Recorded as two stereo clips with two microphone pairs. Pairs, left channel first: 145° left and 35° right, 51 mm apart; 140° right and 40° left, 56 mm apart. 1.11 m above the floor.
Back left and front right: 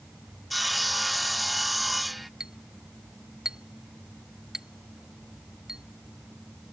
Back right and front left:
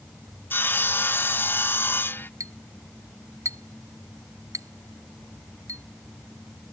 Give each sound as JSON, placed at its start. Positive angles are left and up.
{"t": 0.5, "sound": "sawing", "azimuth_deg": -120}
{"t": 2.4, "sound": "a clink", "azimuth_deg": 40}